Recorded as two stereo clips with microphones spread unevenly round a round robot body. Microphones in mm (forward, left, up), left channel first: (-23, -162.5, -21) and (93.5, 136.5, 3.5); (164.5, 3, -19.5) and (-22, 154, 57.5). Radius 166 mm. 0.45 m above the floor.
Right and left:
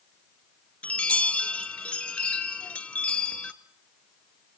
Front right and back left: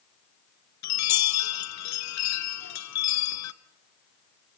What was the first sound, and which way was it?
A chime, 25° right.